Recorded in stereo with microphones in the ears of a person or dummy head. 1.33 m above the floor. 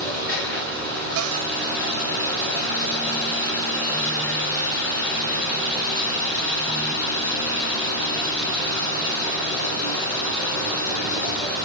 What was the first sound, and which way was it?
Running water, 15° left (ahead or behind).